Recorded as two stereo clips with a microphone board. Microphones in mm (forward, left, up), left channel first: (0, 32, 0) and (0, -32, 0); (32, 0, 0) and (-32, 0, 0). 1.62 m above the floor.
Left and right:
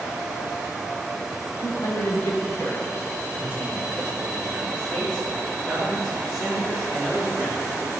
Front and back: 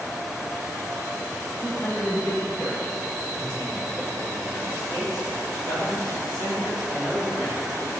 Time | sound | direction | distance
1.6 | a man speaking | 70° left | 2.5 m